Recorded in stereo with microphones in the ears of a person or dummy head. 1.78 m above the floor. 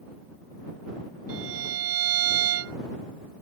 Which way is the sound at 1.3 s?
75° right (ahead or behind).